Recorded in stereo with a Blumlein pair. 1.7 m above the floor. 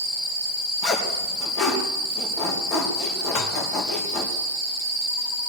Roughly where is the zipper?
Ahead left.